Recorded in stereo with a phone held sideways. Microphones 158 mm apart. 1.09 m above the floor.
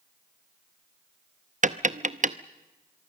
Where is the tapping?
55° right (ahead or behind), 0.7 m.